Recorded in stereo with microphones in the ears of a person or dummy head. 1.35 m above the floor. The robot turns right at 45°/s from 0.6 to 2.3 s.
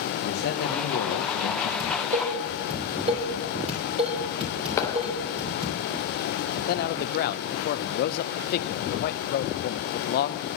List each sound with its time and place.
0.2 s a man speaking: 55° left, 1.4 m; by 1.7 s 100° left, 1.4 m
1.8 s dishes clattering: 55° right (ahead or behind), 3.5 m; by 5.8 s 30° right (ahead or behind), 3.5 m
4.8 s a clap: 15° left (ahead or behind), 0.7 m
6.7 s a man speaking: 50° left (ahead or behind), 0.7 m